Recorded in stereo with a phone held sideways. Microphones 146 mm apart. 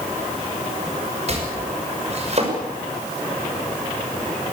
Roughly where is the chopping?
Right.